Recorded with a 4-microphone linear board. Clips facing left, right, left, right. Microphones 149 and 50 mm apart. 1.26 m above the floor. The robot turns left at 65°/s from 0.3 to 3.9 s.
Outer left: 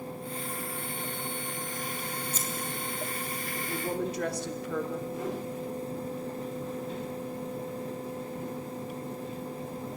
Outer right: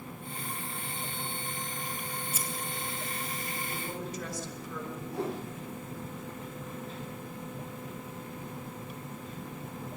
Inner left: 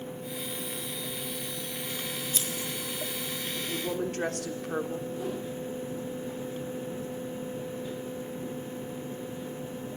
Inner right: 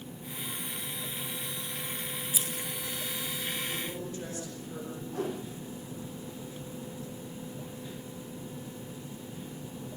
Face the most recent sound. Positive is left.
turn(degrees=-70)  # may be behind; listen again after turning